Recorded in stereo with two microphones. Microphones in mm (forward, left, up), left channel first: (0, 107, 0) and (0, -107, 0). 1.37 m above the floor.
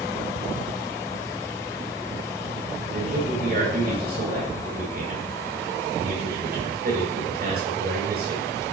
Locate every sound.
2.9 s a man speaking: 50° right (ahead or behind), 5 m